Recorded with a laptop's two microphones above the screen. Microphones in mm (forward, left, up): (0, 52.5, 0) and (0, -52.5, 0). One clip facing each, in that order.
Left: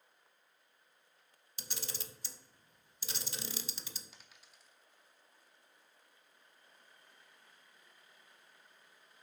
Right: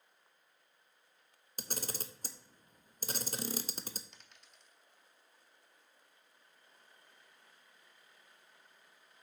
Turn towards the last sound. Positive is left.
turn(degrees=5)  # may be behind; listen again after turning